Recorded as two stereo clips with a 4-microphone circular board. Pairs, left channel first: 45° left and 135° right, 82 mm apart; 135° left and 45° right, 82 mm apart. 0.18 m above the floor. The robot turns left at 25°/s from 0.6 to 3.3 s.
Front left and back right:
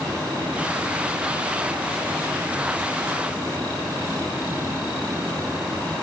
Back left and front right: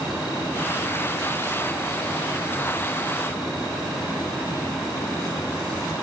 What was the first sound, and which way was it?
Only background noise.